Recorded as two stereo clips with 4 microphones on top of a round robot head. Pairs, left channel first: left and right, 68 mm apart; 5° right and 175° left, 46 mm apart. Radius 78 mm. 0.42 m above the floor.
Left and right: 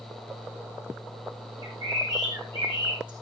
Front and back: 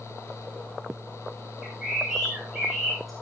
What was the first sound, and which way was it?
A bird, 95° right.